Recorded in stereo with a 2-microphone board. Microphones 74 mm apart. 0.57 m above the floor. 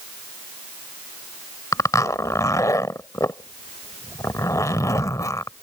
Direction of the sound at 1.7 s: 50° left (ahead or behind).